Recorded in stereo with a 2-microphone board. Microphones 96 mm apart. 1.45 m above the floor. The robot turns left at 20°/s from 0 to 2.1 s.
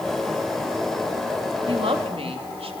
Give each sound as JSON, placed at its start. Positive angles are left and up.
{"t": 1.7, "sound": "a woman speaking", "side_deg": -70, "distance_m": 3.0}